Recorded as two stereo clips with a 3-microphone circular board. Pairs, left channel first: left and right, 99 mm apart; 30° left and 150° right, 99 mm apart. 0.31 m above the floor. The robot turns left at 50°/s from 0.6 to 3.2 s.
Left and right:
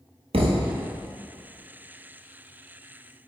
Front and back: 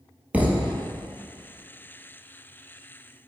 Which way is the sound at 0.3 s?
75° right.